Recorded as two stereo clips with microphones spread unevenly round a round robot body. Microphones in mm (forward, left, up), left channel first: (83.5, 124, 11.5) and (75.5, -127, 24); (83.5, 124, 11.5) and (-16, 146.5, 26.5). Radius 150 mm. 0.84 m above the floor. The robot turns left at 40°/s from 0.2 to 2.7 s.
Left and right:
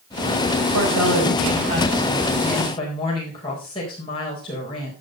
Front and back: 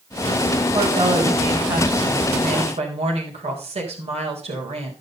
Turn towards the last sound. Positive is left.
turn(degrees=160)